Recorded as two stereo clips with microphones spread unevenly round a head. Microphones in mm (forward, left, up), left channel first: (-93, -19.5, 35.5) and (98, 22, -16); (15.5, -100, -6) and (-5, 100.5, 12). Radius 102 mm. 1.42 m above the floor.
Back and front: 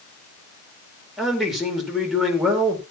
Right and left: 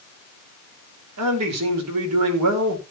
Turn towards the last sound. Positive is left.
turn(degrees=100)